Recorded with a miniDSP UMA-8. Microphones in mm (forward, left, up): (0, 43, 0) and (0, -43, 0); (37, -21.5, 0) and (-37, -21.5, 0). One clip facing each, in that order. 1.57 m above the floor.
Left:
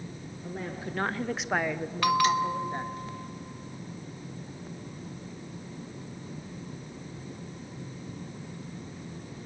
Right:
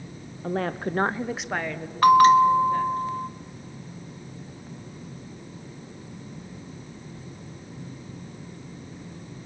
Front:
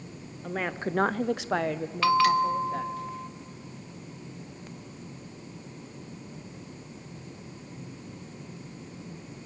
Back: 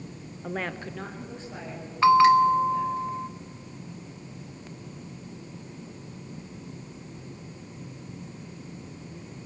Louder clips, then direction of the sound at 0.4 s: Right 10 dB, front 2 dB; 100° right.